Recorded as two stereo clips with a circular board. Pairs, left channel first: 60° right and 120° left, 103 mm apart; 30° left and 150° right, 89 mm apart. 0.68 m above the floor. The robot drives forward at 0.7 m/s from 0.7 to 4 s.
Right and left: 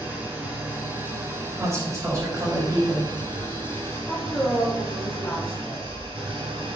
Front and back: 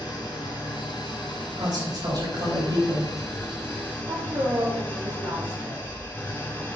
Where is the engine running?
50° left, 3 m; by 6.8 s 100° left, 2.5 m.